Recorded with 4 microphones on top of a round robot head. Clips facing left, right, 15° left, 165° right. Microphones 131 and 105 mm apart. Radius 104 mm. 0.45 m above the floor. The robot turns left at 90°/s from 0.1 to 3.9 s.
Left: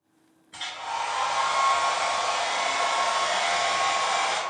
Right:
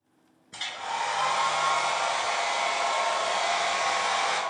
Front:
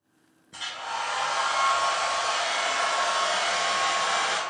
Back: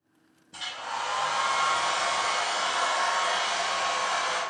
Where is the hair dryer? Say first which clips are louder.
Left 1 dB, front 1 dB; 40° right, 1.2 m; by 4.4 s 15° left, 1.2 m.